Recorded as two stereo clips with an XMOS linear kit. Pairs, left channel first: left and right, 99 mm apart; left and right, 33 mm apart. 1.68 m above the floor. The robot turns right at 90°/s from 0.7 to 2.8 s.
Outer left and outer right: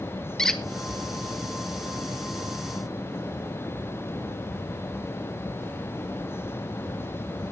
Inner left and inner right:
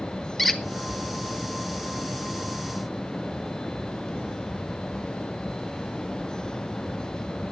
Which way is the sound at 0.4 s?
5° left (ahead or behind).